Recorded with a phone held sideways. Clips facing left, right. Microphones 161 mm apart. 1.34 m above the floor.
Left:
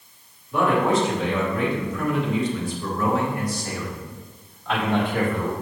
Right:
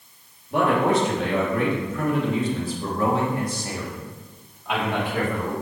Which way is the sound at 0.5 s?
65° right (ahead or behind).